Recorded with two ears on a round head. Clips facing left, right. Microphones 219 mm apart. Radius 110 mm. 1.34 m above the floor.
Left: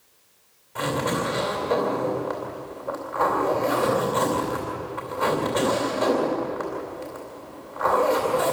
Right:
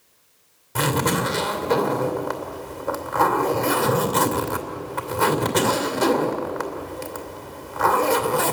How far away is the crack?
I don't hear a crack.